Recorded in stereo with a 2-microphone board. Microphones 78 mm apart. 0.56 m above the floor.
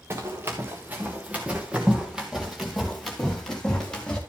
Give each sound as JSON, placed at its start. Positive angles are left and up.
{"t": 0.1, "sound": "running footsteps", "side_deg": -35, "distance_m": 2.5}